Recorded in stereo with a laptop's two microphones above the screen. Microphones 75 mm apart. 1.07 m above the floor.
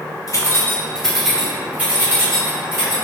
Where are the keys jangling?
50° left (ahead or behind), 0.5 m; by 2.9 s 35° right (ahead or behind), 1.3 m.